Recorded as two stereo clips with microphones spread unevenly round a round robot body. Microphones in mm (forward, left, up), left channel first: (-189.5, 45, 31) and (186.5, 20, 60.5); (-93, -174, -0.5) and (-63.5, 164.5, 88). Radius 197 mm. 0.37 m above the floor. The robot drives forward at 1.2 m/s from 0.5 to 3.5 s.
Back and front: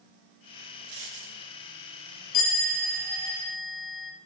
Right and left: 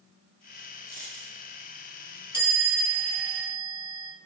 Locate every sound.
0.9 s a dropped coin: 25° right, 4.5 m
2.3 s a chime: 160° right, 6 m; by 4.1 s 165° right, 7.5 m